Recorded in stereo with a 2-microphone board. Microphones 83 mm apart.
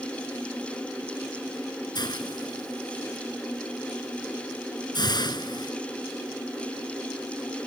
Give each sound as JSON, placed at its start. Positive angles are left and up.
{"t": 1.9, "sound": "a hiss", "side_deg": 55}